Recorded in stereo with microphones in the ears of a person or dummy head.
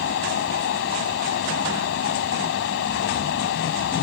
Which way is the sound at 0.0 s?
70° left (ahead or behind).